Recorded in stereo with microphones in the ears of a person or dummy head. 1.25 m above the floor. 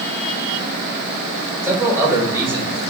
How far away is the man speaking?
About 2.5 m.